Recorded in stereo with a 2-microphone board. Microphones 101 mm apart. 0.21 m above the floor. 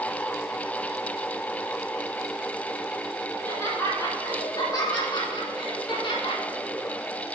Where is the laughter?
20° left (ahead or behind), 3 m; by 6.4 s 55° left (ahead or behind), 2.5 m.